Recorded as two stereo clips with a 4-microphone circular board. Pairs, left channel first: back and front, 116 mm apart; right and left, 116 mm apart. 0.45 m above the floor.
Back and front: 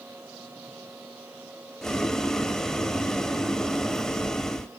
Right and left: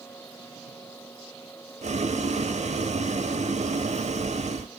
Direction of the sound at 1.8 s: 95° left.